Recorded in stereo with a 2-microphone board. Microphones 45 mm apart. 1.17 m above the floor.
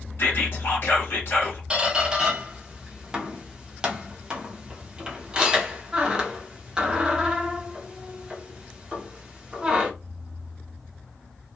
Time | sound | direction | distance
0.2 | whispering | 55° left (ahead or behind) | 1.4 m
1.7 | a squeak | 15° right (ahead or behind) | 0.7 m